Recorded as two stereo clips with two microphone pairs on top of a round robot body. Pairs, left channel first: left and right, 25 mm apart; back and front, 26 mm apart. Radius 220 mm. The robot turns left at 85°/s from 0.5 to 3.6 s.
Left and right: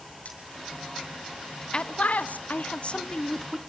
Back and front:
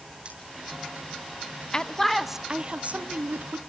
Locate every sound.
0.2 s cutlery clinking: 55° left, 7 m
1.7 s a man speaking: 140° left, 1.5 m; by 3.6 s 15° right, 1.5 m